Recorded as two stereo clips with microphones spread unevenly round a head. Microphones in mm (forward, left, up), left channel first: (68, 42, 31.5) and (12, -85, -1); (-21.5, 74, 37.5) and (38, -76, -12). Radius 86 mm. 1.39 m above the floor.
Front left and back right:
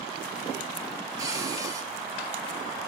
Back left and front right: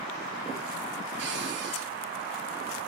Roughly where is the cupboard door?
Ahead right.